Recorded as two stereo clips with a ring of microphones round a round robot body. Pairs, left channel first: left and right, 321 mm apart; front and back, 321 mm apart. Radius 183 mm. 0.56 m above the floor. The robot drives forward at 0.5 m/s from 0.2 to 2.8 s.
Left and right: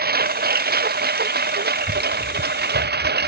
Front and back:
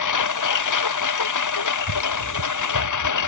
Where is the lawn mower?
30° right.